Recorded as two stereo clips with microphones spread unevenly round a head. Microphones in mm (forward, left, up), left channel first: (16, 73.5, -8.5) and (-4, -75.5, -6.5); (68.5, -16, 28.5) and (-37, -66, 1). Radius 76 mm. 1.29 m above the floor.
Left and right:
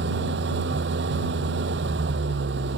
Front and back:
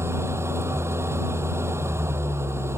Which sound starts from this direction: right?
An engine running, at 0.0 s.